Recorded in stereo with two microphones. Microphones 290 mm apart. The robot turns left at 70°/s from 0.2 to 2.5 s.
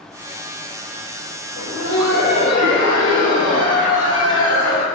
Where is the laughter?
50° left, 1.8 m; by 4.8 s 20° right, 1.8 m.